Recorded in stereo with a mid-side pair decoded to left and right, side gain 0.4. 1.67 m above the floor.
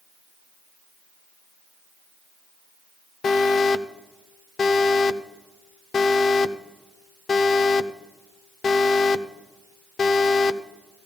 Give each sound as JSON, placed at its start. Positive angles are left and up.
{"t": 3.2, "sound": "an alarm", "azimuth_deg": 55, "distance_m": 0.7}